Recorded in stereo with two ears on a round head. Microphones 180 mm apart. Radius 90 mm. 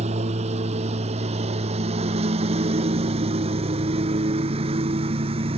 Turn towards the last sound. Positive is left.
turn(degrees=-30)  # may be behind; listen again after turning